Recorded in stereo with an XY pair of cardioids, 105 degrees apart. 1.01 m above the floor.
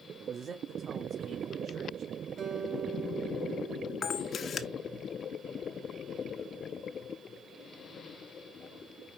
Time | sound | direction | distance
0.2 | a man speaking | 50° right | 1.3 m
2.4 | a guitar | 55° right | 4.5 m
4.0 | a camera shutter | 45° left | 1.0 m